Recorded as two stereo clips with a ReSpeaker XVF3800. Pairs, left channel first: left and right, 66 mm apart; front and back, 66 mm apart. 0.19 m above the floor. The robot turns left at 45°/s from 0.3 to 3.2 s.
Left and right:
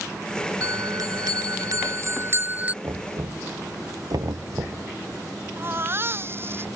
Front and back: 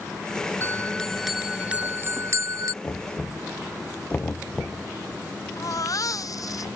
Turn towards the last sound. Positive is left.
turn(degrees=-35)